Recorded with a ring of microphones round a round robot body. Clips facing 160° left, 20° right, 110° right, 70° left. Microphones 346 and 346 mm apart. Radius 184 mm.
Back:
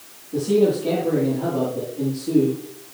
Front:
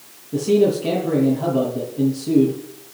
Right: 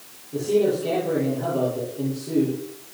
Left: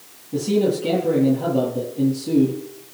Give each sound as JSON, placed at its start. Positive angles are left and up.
{"t": 0.3, "sound": "a man speaking", "azimuth_deg": 25, "distance_m": 9.5}